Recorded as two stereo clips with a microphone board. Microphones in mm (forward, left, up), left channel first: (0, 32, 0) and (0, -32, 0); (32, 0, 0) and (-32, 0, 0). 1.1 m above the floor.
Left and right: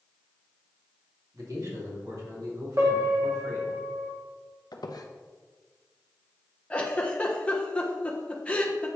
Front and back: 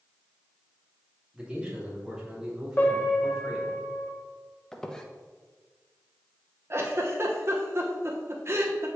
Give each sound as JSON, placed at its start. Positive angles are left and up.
{"t": 1.3, "sound": "a man speaking", "azimuth_deg": -110, "distance_m": 2.5}
{"t": 2.8, "sound": "a piano", "azimuth_deg": -65, "distance_m": 1.3}
{"t": 4.7, "sound": "a squeak", "azimuth_deg": 80, "distance_m": 0.7}
{"t": 6.7, "sound": "a giggle", "azimuth_deg": 155, "distance_m": 0.9}